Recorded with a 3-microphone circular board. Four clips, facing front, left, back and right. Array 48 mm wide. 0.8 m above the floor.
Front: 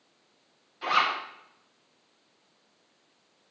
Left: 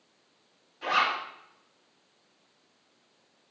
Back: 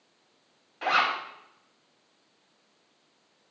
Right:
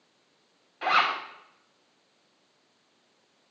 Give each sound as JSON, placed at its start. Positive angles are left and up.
{"t": 0.8, "sound": "a zipper", "azimuth_deg": -135, "distance_m": 4.5}